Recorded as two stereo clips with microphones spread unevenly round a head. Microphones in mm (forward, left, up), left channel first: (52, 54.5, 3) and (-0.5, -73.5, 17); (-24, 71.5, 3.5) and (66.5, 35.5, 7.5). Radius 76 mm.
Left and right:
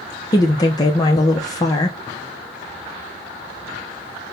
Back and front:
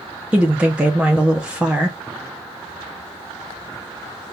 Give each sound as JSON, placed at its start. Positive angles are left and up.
{"t": 0.3, "sound": "a woman speaking", "azimuth_deg": 55, "distance_m": 0.7}